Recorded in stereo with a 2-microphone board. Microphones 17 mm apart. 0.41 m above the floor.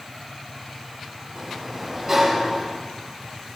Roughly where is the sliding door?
Centre.